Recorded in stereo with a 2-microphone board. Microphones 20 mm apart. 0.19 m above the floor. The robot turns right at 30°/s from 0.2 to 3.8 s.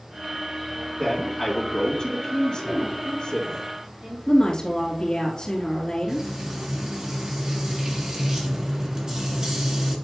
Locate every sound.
1.0 s a man speaking: 60° left, 3 m; by 3.6 s 135° left, 3 m
2.6 s a woman speaking: 35° right (ahead or behind), 4 m; by 4.2 s 65° right (ahead or behind), 4 m
4.3 s a woman speaking: 35° left (ahead or behind), 3 m
6.1 s frying: 40° right (ahead or behind), 2 m